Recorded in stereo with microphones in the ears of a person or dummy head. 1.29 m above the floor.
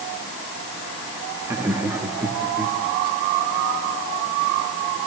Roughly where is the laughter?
Centre.